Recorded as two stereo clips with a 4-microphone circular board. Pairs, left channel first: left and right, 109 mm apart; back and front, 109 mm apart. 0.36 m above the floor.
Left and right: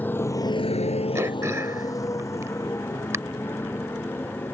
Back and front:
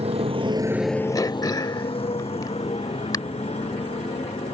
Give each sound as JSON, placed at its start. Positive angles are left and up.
{"t": 0.0, "sound": "a motorcycle", "azimuth_deg": 15}
{"t": 1.1, "sound": "throat clearing", "azimuth_deg": -145}